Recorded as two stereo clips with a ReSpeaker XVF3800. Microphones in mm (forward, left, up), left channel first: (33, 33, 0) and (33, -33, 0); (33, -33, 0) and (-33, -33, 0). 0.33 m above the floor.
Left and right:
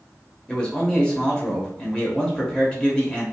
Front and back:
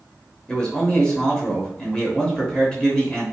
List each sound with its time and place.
0.5 s a man speaking: 45° left, 0.8 m